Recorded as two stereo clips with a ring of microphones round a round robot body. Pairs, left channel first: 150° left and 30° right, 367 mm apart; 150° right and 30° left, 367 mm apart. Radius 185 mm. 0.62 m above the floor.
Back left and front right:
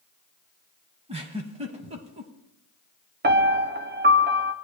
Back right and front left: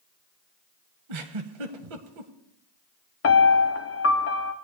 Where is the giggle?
45° left, 1.1 m.